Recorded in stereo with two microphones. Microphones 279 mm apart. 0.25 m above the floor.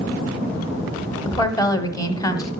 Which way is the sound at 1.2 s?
15° left (ahead or behind).